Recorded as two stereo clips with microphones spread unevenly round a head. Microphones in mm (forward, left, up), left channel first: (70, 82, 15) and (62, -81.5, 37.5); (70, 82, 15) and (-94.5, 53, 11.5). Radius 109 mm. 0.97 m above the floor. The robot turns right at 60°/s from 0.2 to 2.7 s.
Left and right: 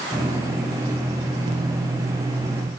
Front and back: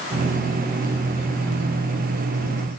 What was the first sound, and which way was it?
Only background noise.